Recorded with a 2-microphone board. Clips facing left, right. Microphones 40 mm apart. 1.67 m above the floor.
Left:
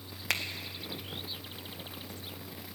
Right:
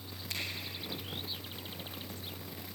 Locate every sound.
0.3 s a finger snap: 80° left, 1.7 m